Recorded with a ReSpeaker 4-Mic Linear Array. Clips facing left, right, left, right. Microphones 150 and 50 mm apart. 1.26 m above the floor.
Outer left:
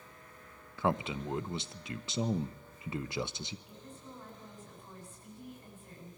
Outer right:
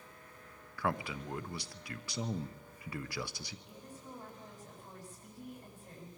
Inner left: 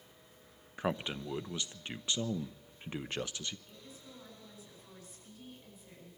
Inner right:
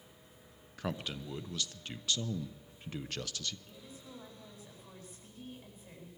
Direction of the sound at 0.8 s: 20° left (ahead or behind).